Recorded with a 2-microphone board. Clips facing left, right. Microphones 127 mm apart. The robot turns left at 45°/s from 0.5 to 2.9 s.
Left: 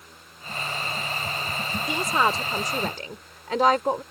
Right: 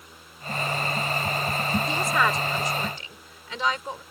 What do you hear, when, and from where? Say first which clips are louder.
1.9 s a woman speaking: left 4 dB; 165° left; by 4.0 s 120° left